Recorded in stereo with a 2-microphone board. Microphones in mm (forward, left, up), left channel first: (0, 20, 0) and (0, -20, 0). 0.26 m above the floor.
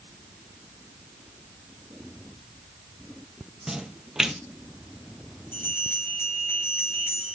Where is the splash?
10° right (ahead or behind), 1.1 m.